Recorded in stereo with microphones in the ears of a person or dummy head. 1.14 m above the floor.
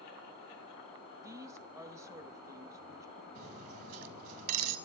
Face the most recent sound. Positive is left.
turn(degrees=-50)  # may be behind; listen again after turning